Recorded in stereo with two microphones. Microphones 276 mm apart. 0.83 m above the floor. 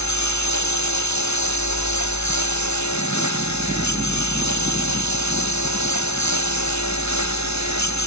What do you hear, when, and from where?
0.0 s a lawn mower: 90° left; by 8.1 s 80° left